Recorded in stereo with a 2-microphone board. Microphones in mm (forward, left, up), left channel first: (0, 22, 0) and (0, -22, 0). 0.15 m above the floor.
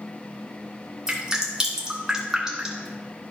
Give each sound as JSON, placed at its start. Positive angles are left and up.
{"t": 1.1, "sound": "dripping", "side_deg": -15, "distance_m": 1.9}